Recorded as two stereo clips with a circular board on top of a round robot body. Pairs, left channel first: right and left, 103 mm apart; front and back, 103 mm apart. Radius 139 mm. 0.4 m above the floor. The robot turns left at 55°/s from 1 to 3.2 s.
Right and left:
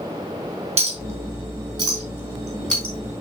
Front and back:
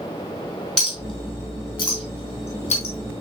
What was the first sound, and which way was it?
A clink, 85° left.